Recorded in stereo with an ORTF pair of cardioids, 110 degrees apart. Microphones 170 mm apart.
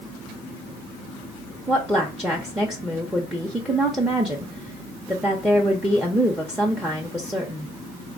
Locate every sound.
1.7 s a woman speaking: 5° right, 0.5 m